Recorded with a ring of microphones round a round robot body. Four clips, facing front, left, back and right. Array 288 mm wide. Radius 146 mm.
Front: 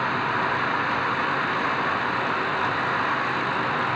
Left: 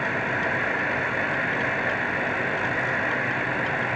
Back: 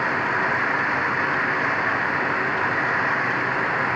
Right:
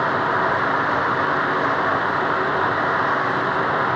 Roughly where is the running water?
Right.